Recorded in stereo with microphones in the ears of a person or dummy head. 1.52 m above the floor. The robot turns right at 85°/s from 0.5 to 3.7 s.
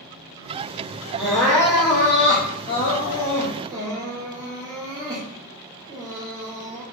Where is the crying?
5° right (ahead or behind), 0.6 m; by 6.8 s 10° right (ahead or behind), 0.6 m.